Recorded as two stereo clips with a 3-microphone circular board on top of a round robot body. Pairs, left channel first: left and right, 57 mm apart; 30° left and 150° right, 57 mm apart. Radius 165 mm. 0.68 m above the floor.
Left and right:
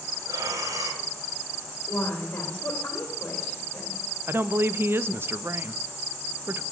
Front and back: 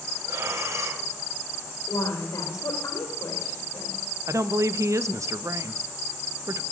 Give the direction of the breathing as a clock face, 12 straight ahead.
4 o'clock.